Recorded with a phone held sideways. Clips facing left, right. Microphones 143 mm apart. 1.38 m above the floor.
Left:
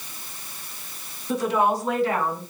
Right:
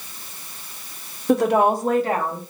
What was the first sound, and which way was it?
A woman speaking, 70° right (ahead or behind).